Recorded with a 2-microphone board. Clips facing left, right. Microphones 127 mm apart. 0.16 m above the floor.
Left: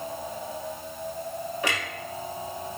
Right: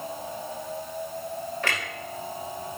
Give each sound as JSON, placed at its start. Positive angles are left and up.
{"t": 1.6, "sound": "a clunk", "side_deg": 15, "distance_m": 3.0}